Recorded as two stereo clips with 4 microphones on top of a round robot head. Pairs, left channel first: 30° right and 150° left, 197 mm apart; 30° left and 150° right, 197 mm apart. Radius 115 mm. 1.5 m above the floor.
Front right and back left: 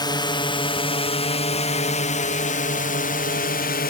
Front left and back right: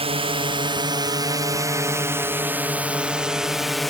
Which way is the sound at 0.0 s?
95° right.